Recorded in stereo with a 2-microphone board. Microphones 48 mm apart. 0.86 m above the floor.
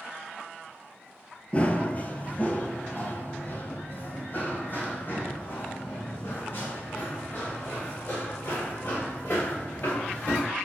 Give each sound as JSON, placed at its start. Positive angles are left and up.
{"t": 1.5, "sound": "running footsteps", "side_deg": 25, "distance_m": 1.1}